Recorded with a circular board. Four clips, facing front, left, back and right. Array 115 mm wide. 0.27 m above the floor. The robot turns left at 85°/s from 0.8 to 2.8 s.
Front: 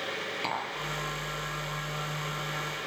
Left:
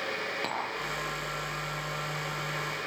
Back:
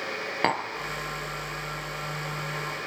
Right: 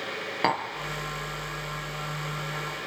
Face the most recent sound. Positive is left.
turn(degrees=40)